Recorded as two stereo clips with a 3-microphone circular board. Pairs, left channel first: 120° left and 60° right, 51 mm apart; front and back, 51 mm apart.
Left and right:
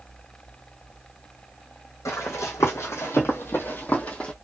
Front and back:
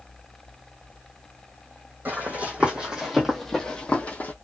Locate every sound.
2.0 s running footsteps: 125° left, 1.2 m; by 4.3 s 50° left, 0.9 m